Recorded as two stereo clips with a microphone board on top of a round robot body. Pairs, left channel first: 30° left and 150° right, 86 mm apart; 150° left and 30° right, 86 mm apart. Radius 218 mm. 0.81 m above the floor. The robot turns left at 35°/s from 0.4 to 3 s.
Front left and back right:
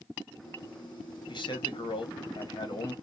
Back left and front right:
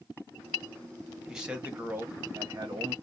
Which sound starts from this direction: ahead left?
A man speaking, at 1.3 s.